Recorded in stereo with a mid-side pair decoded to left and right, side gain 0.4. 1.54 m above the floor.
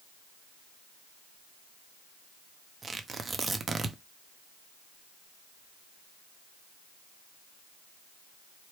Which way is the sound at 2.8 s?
35° right.